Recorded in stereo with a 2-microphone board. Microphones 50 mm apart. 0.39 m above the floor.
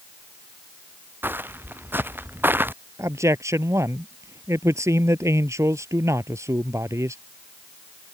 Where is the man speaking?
85° right.